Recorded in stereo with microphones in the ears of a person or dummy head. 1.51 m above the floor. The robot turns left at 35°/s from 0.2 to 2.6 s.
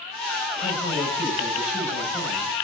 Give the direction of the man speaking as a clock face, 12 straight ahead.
11 o'clock.